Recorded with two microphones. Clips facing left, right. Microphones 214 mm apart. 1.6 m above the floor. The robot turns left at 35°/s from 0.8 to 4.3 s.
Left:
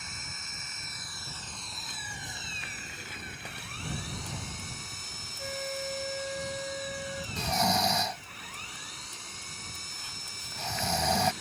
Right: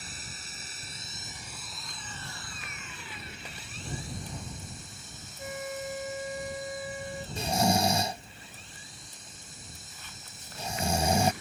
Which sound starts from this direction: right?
Snoring, at 7.4 s.